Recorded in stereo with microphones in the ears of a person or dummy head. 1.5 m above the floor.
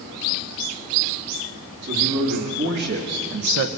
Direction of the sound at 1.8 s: 55° right (ahead or behind).